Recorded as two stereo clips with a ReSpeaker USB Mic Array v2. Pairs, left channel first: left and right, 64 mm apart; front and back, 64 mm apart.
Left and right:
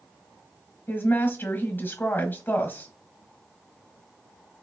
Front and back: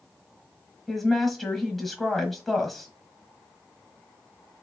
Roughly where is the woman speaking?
Left.